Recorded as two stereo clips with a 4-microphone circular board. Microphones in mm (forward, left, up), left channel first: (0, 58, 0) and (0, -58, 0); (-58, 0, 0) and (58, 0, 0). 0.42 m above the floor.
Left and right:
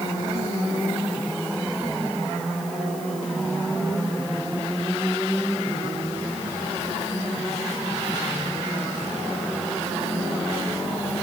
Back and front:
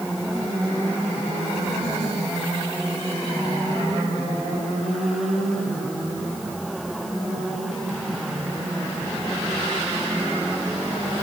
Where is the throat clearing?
No throat clearing in this recording.